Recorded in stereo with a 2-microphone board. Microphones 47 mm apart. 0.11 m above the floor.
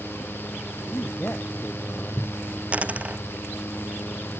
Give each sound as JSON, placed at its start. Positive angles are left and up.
{"t": 0.9, "sound": "a man speaking", "side_deg": 40}
{"t": 2.7, "sound": "a dropped coin", "side_deg": -30}